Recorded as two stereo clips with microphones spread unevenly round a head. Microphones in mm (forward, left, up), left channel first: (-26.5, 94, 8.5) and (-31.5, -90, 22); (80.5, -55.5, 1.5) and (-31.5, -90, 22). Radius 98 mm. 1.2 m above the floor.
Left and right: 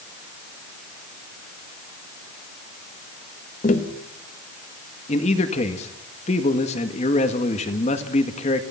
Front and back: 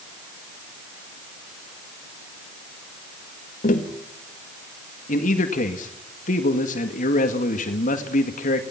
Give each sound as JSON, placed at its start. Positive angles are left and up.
{"t": 3.6, "sound": "tapping", "azimuth_deg": 35, "distance_m": 1.8}
{"t": 5.1, "sound": "a man speaking", "azimuth_deg": 30, "distance_m": 1.8}